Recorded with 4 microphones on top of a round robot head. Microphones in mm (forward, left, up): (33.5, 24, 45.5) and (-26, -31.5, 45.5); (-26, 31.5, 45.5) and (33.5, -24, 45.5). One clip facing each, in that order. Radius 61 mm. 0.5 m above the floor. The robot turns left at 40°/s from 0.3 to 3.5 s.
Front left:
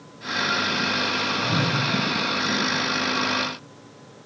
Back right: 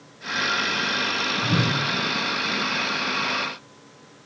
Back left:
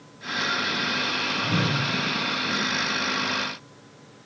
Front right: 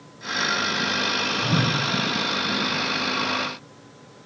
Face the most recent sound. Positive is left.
turn(degrees=-170)